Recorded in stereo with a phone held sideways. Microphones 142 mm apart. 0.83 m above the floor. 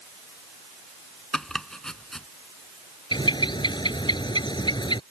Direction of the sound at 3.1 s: 30° left (ahead or behind).